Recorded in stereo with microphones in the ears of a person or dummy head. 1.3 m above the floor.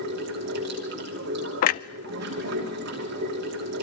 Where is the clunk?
40° left (ahead or behind), 0.5 m.